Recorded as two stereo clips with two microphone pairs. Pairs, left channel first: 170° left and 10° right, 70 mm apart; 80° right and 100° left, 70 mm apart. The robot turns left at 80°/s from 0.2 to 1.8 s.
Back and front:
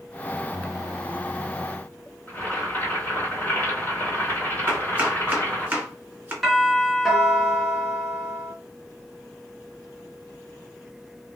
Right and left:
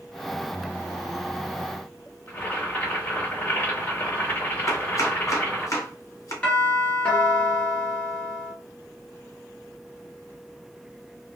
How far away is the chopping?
About 1.3 m.